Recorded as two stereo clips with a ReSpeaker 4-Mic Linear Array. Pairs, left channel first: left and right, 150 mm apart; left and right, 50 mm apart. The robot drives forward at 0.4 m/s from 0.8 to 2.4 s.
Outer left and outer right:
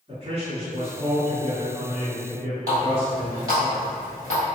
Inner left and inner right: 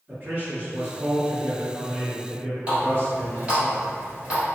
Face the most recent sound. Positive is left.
turn(degrees=-20)  # may be behind; listen again after turning